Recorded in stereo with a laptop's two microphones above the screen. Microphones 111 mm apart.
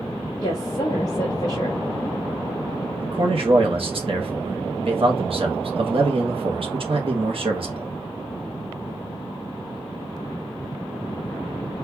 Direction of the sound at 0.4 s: 75° left (ahead or behind).